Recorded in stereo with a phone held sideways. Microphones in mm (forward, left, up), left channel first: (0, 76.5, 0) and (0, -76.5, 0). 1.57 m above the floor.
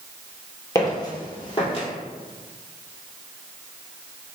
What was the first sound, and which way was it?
Footsteps, 20° left (ahead or behind).